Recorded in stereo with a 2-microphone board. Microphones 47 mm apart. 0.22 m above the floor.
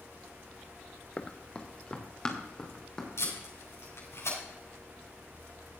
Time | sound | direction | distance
1.2 | running footsteps | 25° left (ahead or behind) | 1.3 m
3.2 | tape being pulled | 75° left (ahead or behind) | 7.5 m